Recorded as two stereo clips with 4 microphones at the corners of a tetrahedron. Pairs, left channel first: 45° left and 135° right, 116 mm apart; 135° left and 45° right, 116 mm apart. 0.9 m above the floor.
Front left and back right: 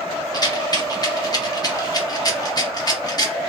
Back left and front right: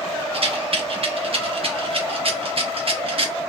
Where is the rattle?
10° right, 0.6 m.